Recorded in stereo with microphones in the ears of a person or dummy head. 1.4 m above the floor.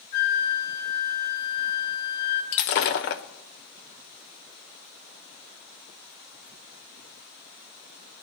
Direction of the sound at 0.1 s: 50° left (ahead or behind).